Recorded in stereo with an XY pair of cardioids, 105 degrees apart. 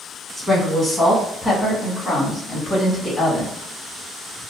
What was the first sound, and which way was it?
A woman speaking, 15° right.